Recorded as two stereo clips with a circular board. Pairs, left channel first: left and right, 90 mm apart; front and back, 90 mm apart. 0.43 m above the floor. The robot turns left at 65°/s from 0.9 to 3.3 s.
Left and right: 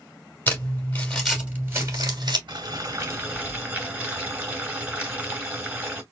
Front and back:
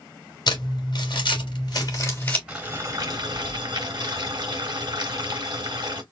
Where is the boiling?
105° right, 2.5 m; by 6.0 s 155° right, 2.5 m.